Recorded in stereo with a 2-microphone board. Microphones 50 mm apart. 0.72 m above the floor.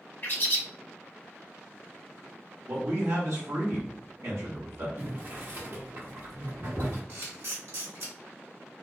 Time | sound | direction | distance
0.2 | a bird | 40° left (ahead or behind) | 0.8 m
2.7 | a man speaking | 65° right (ahead or behind) | 1.2 m
5.0 | boiling | 40° right (ahead or behind) | 0.9 m
7.1 | a camera shutter | 50° right (ahead or behind) | 1.7 m